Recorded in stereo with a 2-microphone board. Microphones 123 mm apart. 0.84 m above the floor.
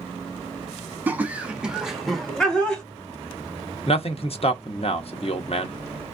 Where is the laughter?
15° right (ahead or behind), 1.0 m; by 2.8 s 10° left (ahead or behind), 1.1 m.